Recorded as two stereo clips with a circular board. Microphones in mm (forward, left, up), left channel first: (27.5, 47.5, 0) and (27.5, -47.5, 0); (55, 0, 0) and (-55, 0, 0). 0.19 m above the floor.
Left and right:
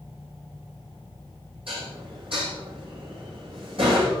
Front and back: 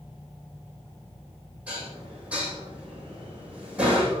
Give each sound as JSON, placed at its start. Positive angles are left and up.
{"t": 1.7, "sound": "dishes clattering", "azimuth_deg": -100, "distance_m": 7.5}